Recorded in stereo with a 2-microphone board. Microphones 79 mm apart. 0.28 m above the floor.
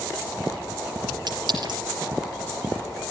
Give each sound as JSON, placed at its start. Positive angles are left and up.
{"t": 1.3, "sound": "a clink", "side_deg": -60, "distance_m": 4.5}